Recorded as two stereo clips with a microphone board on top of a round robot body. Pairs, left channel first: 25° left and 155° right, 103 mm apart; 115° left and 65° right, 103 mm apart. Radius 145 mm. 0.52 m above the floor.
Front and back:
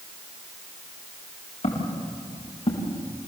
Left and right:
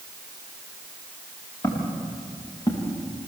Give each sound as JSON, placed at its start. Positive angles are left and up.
{"t": 1.6, "sound": "footsteps", "azimuth_deg": 50, "distance_m": 7.0}